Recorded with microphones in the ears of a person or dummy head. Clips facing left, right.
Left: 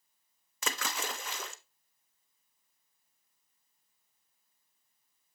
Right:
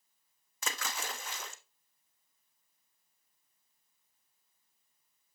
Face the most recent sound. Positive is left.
turn(degrees=60)  # may be behind; listen again after turning